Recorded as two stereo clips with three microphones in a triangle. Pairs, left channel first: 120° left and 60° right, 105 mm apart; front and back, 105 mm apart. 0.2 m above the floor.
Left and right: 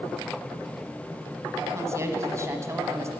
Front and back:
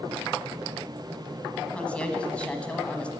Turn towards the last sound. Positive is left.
turn(degrees=-65)